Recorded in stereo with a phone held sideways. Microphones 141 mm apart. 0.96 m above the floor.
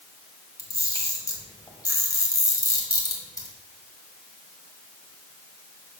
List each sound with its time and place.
0.6 s a camera shutter: 25° left (ahead or behind), 1.7 m